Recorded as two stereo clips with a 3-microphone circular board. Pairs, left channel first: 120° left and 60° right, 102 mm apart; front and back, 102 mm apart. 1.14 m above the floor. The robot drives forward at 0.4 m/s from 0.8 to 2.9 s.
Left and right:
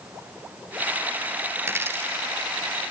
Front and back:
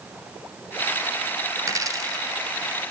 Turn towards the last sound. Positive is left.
turn(degrees=-135)